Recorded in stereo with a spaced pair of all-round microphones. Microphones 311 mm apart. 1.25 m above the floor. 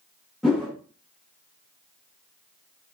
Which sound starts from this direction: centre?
A whoosh, at 0.4 s.